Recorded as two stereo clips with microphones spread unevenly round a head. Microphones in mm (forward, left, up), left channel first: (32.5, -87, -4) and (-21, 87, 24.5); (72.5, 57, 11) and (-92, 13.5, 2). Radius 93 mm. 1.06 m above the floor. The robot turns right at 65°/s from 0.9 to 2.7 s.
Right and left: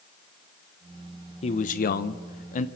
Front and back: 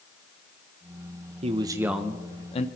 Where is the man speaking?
115° right, 0.5 m; by 2.7 s 35° right, 0.5 m.